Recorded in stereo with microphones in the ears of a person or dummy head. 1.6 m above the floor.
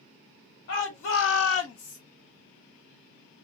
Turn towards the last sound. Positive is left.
turn(degrees=75)  # may be behind; listen again after turning